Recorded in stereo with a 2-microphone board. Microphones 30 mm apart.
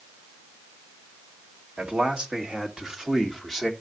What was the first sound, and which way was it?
A man speaking, 35° right (ahead or behind).